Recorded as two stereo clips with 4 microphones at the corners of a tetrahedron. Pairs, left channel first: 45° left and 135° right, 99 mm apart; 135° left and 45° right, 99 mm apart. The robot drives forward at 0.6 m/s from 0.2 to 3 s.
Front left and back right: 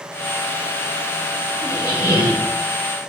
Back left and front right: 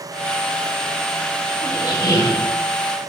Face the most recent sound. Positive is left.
turn(degrees=100)